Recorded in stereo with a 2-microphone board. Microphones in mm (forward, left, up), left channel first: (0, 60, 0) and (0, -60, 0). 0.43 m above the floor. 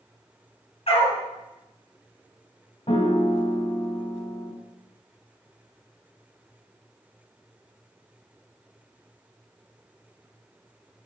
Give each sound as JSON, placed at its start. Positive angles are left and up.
{"t": 0.9, "sound": "a dog barking", "side_deg": 55, "distance_m": 1.5}
{"t": 2.9, "sound": "a piano", "side_deg": 50, "distance_m": 0.8}